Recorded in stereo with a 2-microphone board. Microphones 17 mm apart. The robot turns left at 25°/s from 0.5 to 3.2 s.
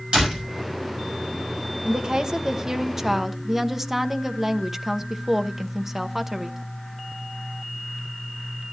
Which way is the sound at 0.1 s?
80° right.